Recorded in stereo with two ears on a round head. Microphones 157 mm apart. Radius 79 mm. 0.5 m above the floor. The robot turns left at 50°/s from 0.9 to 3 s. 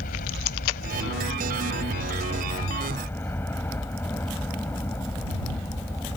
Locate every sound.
0.0 s a helicopter: 120° left; by 6.2 s 15° left